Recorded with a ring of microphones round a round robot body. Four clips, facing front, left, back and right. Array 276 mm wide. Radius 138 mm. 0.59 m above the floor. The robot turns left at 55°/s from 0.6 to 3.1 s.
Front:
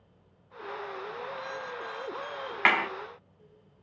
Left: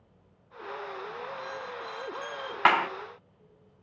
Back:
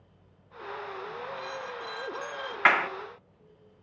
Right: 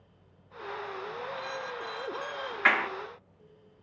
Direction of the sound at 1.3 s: 115° right.